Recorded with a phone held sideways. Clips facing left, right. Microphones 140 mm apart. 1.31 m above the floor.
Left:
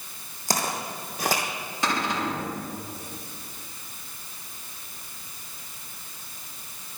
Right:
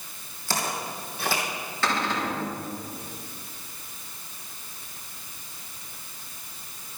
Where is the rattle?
No rattle in this recording.